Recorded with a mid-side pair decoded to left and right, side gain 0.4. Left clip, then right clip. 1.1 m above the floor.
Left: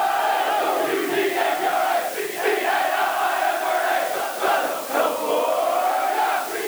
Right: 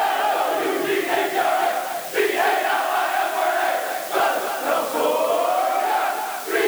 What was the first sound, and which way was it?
Only background noise.